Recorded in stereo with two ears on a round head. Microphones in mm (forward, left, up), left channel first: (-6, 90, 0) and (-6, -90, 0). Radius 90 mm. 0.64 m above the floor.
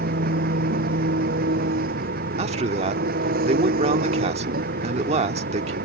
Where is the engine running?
50° right (ahead or behind).